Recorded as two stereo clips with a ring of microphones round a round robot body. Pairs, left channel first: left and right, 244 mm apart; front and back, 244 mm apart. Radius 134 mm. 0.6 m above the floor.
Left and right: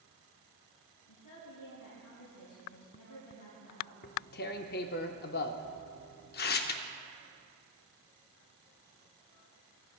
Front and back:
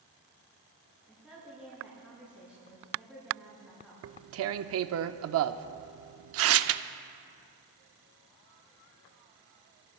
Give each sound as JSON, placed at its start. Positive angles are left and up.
{"t": 1.1, "sound": "a woman speaking", "azimuth_deg": 80, "distance_m": 5.5}
{"t": 4.0, "sound": "tearing paper", "azimuth_deg": 145, "distance_m": 0.5}